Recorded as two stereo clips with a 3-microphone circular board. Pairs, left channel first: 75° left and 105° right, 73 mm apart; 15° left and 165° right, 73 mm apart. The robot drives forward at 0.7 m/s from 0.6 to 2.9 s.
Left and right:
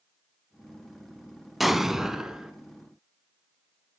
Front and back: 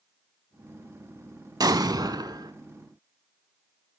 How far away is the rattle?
No rattle in this recording.